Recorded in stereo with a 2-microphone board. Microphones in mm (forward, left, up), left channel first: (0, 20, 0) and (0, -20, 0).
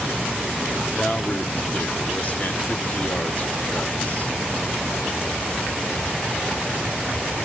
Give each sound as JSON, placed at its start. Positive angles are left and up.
{"t": 0.9, "sound": "a man speaking", "side_deg": 35, "distance_m": 0.9}